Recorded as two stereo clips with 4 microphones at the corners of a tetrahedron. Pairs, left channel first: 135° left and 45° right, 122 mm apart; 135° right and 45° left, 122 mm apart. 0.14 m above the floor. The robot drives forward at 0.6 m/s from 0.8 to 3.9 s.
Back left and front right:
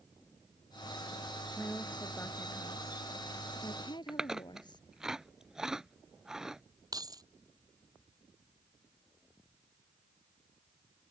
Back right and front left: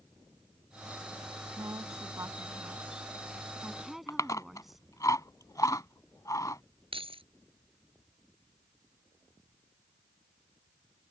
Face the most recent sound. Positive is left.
turn(degrees=10)